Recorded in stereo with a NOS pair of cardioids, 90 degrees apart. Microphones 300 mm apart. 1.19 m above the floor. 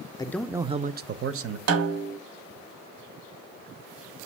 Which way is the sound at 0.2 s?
15° left.